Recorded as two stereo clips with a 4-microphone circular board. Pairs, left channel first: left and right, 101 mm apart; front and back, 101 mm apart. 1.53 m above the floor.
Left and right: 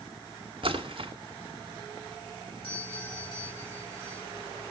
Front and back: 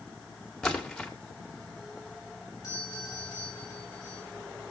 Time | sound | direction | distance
0.6 | a splash | 85° right | 2 m
2.6 | a doorbell | 55° left | 7 m